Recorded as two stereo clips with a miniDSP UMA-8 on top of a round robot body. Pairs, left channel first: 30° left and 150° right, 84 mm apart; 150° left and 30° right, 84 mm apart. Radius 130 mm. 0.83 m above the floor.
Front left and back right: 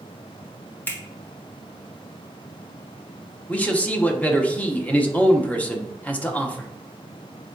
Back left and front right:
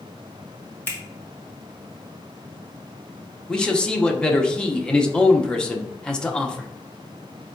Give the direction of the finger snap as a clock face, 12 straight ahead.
9 o'clock.